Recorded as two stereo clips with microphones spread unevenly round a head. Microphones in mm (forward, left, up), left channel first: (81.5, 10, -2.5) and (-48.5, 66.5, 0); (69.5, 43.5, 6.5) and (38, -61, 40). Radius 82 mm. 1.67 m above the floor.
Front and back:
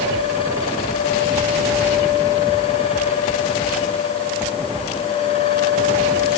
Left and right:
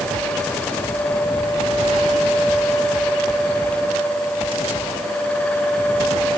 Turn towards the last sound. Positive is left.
No sound to turn to.